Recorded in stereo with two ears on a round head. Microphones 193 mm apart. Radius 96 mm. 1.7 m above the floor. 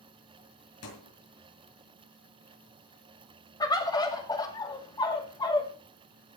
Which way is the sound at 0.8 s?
75° left (ahead or behind).